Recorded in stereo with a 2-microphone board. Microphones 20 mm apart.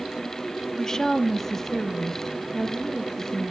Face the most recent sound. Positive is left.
turn(degrees=5)  # may be behind; listen again after turning